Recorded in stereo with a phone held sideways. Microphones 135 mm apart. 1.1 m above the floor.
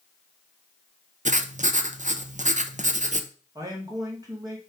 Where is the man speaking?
25° right (ahead or behind), 2 m.